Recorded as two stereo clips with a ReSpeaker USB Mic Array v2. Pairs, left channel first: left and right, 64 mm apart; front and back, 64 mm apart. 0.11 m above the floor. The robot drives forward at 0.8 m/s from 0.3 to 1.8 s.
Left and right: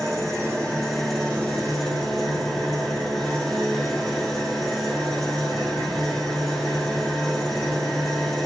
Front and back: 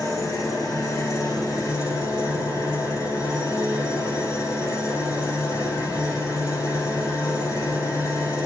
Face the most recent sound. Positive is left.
turn(degrees=5)